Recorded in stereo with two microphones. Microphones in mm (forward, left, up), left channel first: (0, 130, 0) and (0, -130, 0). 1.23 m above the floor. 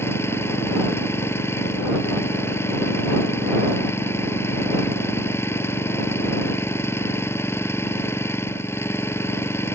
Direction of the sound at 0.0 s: 10° left (ahead or behind).